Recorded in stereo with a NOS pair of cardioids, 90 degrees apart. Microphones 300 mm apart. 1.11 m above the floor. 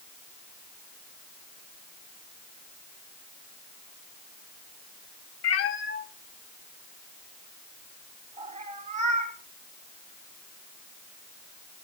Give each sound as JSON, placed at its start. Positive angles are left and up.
{"t": 5.4, "sound": "a cat meowing", "azimuth_deg": 60, "distance_m": 1.7}